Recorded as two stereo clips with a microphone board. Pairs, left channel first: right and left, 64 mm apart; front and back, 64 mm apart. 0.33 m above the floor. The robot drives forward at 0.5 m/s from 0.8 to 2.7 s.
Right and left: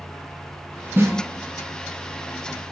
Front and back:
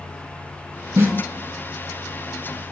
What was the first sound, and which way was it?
A snare drum, 140° left.